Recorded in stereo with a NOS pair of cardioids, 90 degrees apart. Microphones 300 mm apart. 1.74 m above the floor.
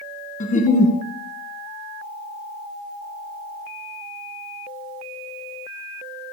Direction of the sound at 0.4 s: 25° left.